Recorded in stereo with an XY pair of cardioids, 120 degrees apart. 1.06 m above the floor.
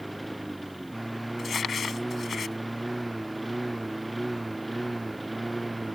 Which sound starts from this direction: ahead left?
Crumpling, at 1.4 s.